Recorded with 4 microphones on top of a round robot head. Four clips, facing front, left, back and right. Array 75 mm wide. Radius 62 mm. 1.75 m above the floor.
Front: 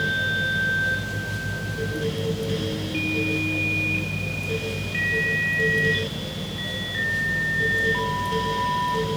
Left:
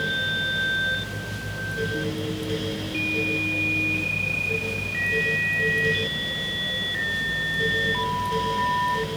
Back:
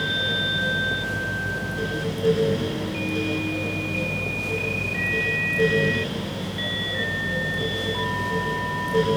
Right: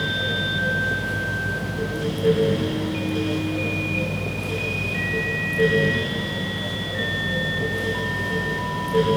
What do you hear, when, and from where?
Only background noise.